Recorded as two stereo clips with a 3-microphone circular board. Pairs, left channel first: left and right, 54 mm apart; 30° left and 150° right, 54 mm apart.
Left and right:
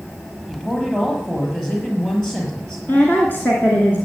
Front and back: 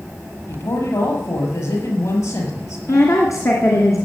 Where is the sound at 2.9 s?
40° left, 2.5 m.